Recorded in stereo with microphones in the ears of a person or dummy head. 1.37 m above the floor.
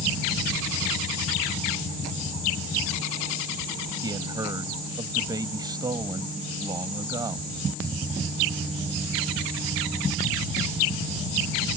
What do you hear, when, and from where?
4.0 s a man speaking: 20° right (ahead or behind)